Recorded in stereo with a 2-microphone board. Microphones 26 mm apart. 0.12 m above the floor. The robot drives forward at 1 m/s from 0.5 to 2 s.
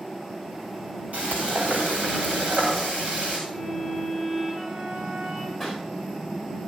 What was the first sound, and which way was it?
Frying, 75° right (ahead or behind).